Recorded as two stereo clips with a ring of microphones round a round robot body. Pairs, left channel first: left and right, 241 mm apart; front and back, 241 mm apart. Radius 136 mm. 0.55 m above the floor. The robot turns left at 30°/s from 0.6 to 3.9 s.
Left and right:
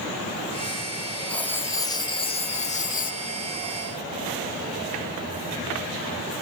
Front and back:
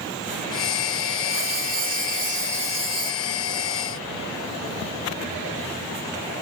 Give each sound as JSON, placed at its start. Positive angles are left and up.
{"t": 1.3, "sound": "writing", "azimuth_deg": 175}